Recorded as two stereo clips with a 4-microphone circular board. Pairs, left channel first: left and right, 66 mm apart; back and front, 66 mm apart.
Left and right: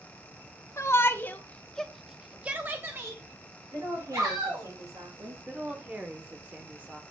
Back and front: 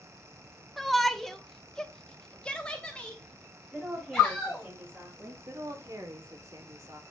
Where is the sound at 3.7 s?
75° right, 6 m.